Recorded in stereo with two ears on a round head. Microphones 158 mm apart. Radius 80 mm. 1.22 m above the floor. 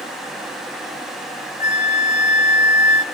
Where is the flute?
45° left (ahead or behind), 1.5 m.